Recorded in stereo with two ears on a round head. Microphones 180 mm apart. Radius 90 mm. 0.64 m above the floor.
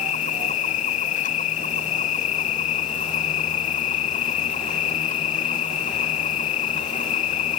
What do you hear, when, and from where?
0.0 s an insect: 35° left (ahead or behind)